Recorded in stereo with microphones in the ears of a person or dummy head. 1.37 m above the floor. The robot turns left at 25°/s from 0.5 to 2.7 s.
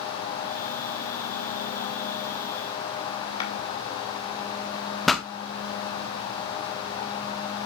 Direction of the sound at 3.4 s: 30° left (ahead or behind).